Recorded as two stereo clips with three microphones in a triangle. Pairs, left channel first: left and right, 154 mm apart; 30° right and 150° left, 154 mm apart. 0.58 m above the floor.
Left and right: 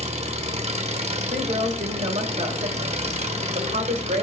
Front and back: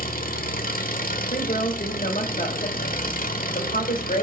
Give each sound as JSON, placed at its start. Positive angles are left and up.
{"t": 0.0, "sound": "an engine running", "azimuth_deg": -45, "distance_m": 1.2}
{"t": 1.3, "sound": "a woman speaking", "azimuth_deg": -60, "distance_m": 2.0}